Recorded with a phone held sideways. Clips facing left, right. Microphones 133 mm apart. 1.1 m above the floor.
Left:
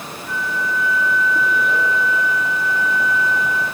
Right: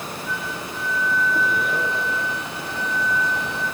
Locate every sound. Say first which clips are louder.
0.3 s a flute: left 10 dB; 50° left (ahead or behind), 1.5 m